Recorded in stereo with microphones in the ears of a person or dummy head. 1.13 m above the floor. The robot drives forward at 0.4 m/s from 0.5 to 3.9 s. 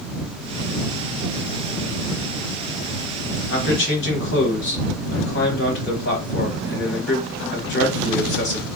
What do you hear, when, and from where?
3.5 s a man speaking: 55° left (ahead or behind), 1.4 m